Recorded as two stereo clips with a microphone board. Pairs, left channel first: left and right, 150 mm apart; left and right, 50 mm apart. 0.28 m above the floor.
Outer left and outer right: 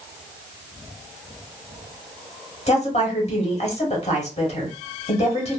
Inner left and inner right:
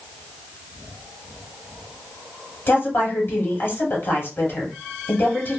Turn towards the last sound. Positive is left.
turn(degrees=45)  # may be behind; listen again after turning